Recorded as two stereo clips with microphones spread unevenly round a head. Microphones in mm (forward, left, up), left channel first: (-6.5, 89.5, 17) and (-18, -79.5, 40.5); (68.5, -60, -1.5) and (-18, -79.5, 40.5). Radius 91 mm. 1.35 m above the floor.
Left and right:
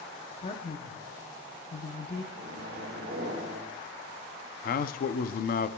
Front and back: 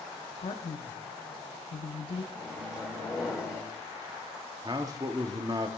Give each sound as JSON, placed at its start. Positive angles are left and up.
{"t": 0.4, "sound": "a man speaking", "azimuth_deg": 30, "distance_m": 0.7}
{"t": 2.3, "sound": "a microwave", "azimuth_deg": -65, "distance_m": 3.0}
{"t": 4.6, "sound": "a man speaking", "azimuth_deg": 120, "distance_m": 0.6}